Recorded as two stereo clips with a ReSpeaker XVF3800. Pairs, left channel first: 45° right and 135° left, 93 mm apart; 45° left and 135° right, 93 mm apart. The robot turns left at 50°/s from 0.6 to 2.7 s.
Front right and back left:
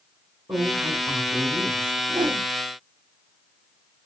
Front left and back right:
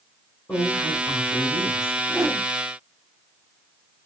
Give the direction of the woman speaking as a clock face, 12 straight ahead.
9 o'clock.